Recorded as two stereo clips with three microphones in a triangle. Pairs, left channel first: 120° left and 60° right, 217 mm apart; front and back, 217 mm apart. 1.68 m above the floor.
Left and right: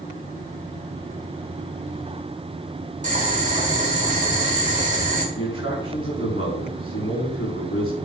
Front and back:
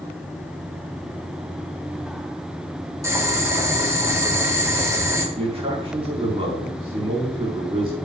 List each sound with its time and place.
3.0 s boiling: 105° right, 2 m
5.3 s a man speaking: 115° left, 4.5 m